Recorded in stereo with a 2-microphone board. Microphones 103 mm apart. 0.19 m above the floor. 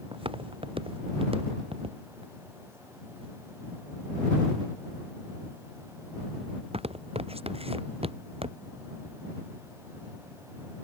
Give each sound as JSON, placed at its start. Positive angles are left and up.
{"t": 0.1, "sound": "footsteps", "side_deg": -65}